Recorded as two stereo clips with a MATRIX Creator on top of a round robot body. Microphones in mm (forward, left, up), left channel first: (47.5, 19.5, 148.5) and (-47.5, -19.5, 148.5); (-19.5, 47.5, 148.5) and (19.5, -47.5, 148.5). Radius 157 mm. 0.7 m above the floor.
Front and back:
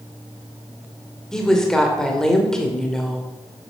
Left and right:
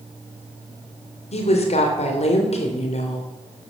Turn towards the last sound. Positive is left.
turn(degrees=110)